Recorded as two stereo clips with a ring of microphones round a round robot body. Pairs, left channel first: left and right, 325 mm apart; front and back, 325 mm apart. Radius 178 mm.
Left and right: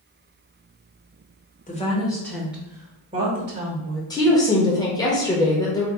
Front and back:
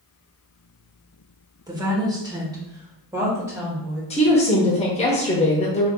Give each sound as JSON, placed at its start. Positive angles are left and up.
{"t": 1.7, "sound": "a woman speaking", "azimuth_deg": 120, "distance_m": 1.2}
{"t": 4.1, "sound": "a woman speaking", "azimuth_deg": 30, "distance_m": 0.8}